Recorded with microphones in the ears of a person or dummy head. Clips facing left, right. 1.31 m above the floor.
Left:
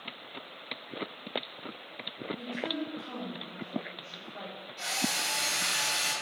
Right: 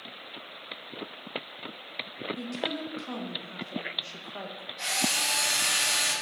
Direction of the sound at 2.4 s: 75° right (ahead or behind).